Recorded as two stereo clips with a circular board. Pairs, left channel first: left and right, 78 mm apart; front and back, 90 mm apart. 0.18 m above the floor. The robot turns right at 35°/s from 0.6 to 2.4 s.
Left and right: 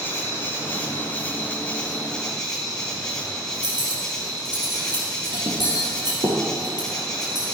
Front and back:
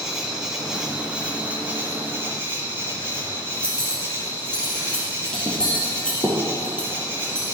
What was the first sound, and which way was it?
An insect, 100° left.